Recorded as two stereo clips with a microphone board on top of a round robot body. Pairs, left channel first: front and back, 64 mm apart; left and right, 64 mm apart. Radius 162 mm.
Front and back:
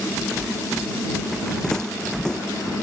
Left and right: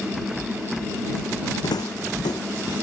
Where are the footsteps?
80° left.